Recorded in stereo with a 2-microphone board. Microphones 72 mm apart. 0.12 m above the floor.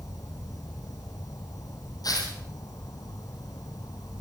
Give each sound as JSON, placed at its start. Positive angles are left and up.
{"t": 0.0, "sound": "an insect", "side_deg": 55, "distance_m": 1.8}
{"t": 2.0, "sound": "tearing paper", "side_deg": 60, "distance_m": 3.5}